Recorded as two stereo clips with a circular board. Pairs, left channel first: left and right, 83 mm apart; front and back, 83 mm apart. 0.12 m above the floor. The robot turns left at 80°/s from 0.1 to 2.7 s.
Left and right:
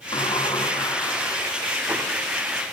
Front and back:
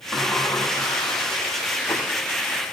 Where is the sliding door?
100° left, 3.5 m; by 2.0 s 55° right, 3.5 m.